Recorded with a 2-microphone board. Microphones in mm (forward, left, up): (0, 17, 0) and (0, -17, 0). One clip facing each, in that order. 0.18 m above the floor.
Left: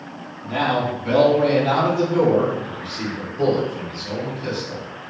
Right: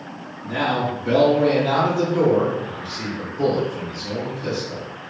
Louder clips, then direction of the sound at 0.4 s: Left 1 dB; 30° left (ahead or behind).